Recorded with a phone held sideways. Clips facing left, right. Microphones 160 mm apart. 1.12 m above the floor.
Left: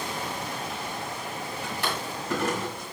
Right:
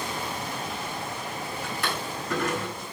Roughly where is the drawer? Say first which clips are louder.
Left 1 dB; left.